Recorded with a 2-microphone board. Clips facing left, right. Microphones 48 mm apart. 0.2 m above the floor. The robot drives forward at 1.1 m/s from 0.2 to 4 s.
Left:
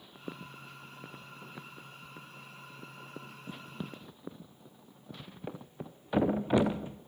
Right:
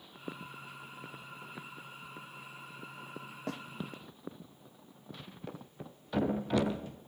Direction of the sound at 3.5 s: 85° right.